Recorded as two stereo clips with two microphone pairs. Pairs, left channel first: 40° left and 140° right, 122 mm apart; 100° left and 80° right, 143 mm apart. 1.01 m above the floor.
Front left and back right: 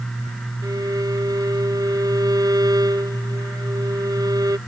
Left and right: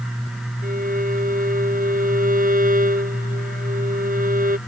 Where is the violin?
80° right.